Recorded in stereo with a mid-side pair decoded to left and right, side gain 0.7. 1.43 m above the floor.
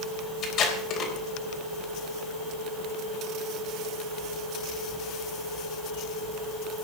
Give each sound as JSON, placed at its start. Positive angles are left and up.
{"t": 0.4, "sound": "tape being pulled", "azimuth_deg": 45, "distance_m": 4.0}